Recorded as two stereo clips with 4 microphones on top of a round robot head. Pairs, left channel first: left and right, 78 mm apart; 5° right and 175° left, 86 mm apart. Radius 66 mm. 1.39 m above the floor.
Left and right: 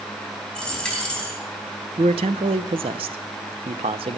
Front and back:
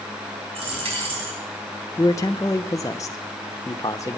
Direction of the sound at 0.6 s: 170° left.